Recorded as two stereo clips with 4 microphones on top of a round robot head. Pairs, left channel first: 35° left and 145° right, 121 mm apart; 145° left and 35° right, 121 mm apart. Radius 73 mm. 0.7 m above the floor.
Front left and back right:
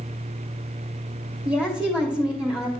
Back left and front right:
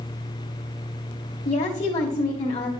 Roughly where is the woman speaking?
Behind left.